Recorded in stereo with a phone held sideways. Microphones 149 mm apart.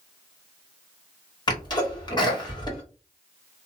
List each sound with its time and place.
1.5 s a sneeze: 30° left (ahead or behind), 1.6 m